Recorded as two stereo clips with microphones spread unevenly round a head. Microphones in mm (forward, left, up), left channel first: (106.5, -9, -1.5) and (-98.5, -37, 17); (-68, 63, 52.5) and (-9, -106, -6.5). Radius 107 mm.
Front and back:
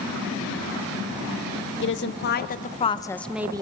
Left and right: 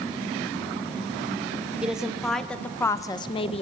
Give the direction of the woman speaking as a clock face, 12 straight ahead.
12 o'clock.